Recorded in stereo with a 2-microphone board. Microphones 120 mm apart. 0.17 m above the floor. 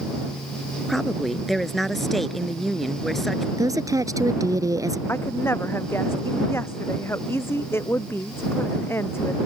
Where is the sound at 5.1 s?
20° left (ahead or behind).